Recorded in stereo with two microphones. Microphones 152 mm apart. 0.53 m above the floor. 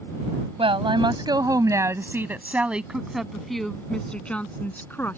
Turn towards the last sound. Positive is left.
turn(degrees=15)  # may be behind; listen again after turning